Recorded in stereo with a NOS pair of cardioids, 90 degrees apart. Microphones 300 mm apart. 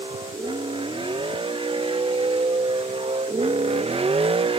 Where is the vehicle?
20° right; by 4.6 s 30° right.